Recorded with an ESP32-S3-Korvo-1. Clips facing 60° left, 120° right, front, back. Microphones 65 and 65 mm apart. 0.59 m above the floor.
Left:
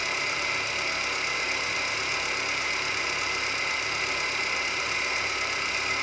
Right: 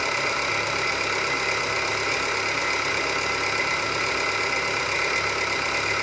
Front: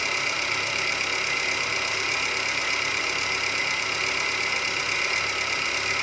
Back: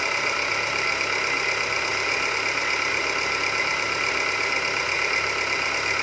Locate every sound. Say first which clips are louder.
0.0 s an engine running: right 5 dB, back 3 dB; 125° right, 1.6 m